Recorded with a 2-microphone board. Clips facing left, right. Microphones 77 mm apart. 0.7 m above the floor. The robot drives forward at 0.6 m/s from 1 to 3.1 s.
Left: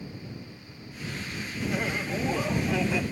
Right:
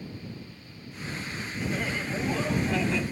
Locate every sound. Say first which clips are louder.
1.7 s laughter: left 2 dB; 20° left (ahead or behind), 0.6 m; by 3.0 s 10° left (ahead or behind), 1.1 m